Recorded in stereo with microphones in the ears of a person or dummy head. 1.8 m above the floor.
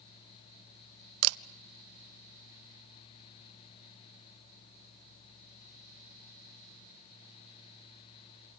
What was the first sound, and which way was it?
A camera shutter, 90° right.